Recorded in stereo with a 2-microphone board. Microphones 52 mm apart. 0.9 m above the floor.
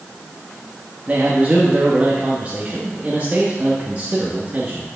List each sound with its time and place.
1.1 s a man speaking: 30° right (ahead or behind), 1.1 m